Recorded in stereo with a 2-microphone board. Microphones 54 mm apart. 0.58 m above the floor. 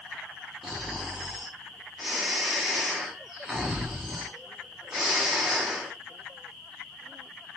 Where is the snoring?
5° right (ahead or behind), 0.8 m.